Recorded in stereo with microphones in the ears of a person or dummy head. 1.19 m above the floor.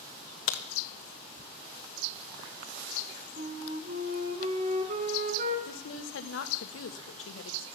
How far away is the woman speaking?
About 1.4 m.